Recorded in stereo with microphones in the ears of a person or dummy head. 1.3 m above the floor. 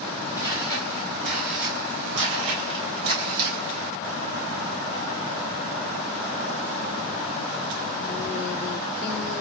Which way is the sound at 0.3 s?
15° right (ahead or behind).